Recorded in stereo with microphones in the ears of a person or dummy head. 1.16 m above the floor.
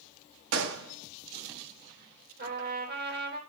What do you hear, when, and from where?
0.5 s a gunshot: 80° right, 1.5 m
2.4 s a trumpet: 55° right (ahead or behind), 4 m